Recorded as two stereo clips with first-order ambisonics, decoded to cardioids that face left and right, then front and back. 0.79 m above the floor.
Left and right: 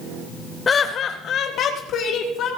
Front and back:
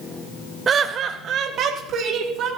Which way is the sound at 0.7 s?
145° left.